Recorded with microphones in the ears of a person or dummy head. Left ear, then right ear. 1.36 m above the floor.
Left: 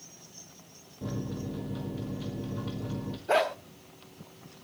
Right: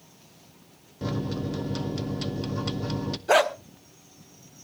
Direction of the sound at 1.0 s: 75° right (ahead or behind).